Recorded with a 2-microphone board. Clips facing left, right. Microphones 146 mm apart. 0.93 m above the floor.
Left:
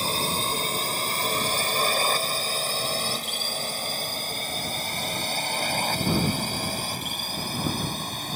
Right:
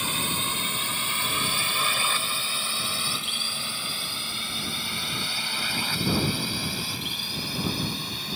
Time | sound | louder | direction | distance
0.0 | a drone | left 4 dB | 35° left (ahead or behind) | ?